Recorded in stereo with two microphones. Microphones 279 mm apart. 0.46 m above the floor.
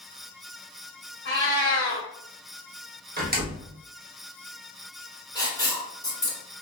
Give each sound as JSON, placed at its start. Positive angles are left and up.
{"t": 1.2, "sound": "a cat meowing", "side_deg": 40, "distance_m": 1.5}
{"t": 3.2, "sound": "a door slam", "side_deg": -30, "distance_m": 0.8}
{"t": 5.3, "sound": "writing", "side_deg": 20, "distance_m": 2.0}